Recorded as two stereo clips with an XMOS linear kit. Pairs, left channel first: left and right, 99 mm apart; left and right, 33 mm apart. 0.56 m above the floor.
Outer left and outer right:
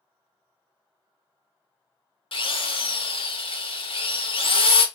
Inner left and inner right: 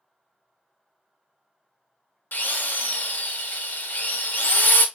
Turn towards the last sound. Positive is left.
turn(degrees=65)  # may be behind; listen again after turning